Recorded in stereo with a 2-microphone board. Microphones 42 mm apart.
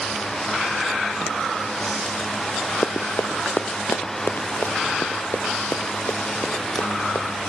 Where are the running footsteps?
70° left (ahead or behind); by 7.3 s 75° left (ahead or behind).